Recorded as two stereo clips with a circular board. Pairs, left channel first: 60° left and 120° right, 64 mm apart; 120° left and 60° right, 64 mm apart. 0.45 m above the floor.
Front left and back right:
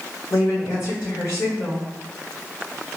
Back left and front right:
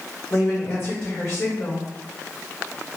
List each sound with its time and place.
0.3 s a woman speaking: 85° left, 2 m